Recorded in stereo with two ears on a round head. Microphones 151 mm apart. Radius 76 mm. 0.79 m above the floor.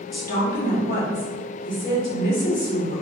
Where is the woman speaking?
55° left (ahead or behind), 1.4 m.